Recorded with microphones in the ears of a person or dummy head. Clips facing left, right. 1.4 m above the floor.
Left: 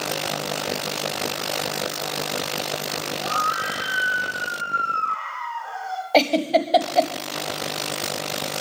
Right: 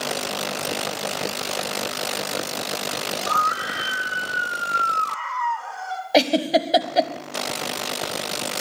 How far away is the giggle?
About 1.1 m.